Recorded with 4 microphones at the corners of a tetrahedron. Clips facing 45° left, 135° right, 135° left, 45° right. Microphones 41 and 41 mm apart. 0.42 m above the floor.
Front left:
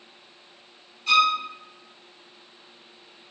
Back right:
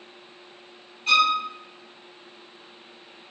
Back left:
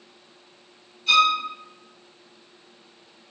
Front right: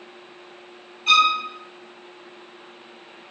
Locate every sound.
1.1 s a violin: 75° right, 1.5 m